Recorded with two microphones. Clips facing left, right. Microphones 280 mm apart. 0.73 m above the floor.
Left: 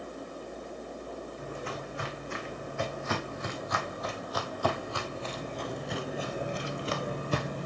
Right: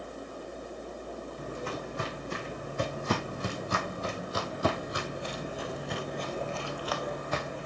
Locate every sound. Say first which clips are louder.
1.4 s footsteps: right 2 dB; 45° right (ahead or behind), 3 m; by 7.7 s 45° left (ahead or behind), 1.3 m